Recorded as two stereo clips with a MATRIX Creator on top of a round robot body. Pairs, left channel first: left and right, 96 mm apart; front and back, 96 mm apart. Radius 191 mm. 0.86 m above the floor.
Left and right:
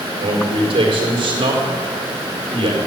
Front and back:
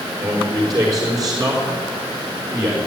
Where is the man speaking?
125° right, 4.5 m.